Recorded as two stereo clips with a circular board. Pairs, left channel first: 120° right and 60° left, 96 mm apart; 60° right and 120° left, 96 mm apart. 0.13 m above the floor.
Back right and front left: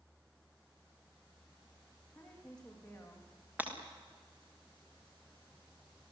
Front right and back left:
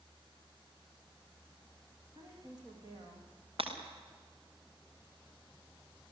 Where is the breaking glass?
135° left, 5.5 m.